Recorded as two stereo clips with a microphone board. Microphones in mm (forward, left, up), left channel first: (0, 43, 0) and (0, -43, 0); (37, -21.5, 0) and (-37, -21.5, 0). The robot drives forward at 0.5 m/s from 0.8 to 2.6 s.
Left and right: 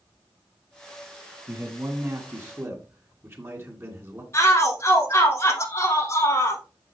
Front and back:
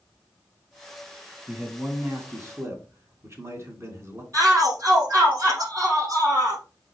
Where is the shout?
140° left, 6 m.